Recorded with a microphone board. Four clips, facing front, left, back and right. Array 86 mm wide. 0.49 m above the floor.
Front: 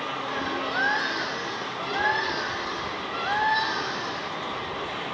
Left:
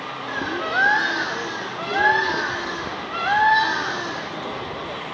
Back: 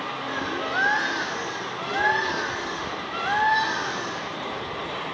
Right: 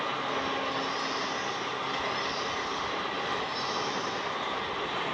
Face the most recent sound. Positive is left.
turn(degrees=100)